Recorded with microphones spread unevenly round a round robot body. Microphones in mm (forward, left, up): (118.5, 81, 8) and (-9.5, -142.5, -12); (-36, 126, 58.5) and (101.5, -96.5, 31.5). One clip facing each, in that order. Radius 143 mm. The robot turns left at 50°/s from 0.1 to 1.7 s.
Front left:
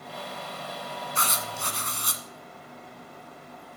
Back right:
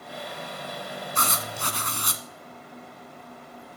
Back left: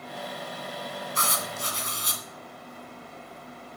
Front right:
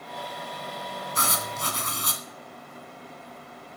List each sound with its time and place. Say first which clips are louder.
1.1 s writing: back right 2 dB, front right 1 dB; 75° right, 1.8 m; by 2.2 s 100° right, 1.8 m